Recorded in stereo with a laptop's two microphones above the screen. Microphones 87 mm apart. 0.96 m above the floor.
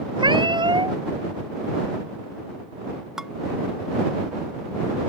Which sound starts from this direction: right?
A cat meowing, at 0.2 s.